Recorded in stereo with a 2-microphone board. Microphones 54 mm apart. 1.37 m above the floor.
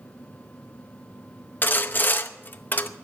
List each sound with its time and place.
1.6 s sawing: 35° left (ahead or behind), 0.7 m